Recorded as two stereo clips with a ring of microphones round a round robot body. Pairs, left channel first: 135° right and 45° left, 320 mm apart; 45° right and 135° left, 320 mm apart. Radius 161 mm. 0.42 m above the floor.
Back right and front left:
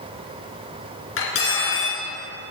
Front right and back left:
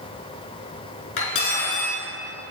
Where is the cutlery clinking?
80° right, 3.5 m.